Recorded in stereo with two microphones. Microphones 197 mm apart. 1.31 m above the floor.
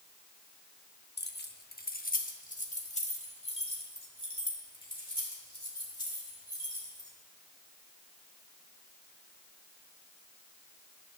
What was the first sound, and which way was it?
Keys jangling, 60° left (ahead or behind).